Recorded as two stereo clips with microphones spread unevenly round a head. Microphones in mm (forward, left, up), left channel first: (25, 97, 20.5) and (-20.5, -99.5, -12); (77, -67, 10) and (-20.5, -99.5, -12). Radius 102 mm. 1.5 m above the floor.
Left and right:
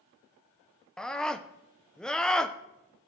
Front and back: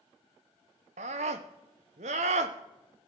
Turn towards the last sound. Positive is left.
turn(degrees=160)